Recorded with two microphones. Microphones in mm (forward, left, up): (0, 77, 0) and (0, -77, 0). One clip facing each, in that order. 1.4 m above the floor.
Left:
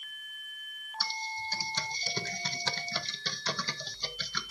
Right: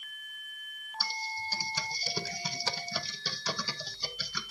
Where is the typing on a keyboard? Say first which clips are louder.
Even; 10° right (ahead or behind), 0.6 m.